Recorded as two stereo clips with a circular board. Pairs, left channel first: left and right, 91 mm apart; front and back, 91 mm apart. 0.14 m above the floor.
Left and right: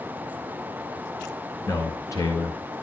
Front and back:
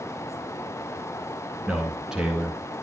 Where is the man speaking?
100° left, 2.0 m.